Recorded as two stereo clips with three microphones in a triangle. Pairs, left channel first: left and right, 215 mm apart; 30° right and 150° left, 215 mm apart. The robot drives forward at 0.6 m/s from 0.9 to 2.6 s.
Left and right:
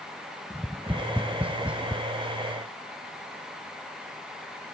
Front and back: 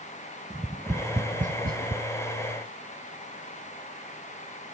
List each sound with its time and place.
0.5 s tapping: 160° right, 0.6 m; by 2.0 s 175° right, 1.0 m